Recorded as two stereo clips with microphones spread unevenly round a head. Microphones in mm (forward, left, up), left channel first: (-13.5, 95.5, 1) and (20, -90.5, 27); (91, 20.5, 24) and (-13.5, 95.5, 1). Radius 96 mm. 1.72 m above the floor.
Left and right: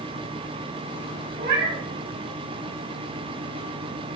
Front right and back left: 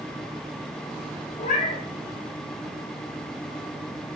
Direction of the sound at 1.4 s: 45° right.